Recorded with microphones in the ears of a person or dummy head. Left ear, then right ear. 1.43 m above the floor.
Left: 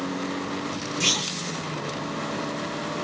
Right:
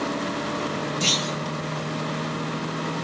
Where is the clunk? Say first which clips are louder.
Even; 35° left (ahead or behind), 1.8 m.